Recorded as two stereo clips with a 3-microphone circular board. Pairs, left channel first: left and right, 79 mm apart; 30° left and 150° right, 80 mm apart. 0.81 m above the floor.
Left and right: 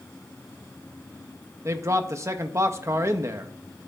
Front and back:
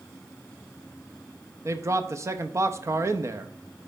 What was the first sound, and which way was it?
A man speaking, 120° right.